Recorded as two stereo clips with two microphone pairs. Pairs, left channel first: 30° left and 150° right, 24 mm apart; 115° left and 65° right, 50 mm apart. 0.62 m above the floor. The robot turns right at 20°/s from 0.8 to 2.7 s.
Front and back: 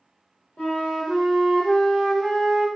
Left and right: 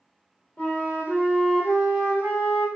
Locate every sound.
0.6 s a flute: 50° left, 1.1 m; by 2.7 s 90° left, 1.1 m